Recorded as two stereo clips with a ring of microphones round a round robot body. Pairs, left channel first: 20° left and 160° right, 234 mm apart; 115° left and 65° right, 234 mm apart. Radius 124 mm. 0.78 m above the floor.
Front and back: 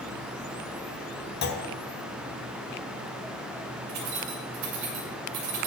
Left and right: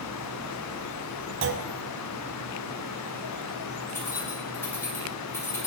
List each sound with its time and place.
1.4 s a clunk: 30° right, 0.9 m
3.9 s keys jangling: 165° right, 2.5 m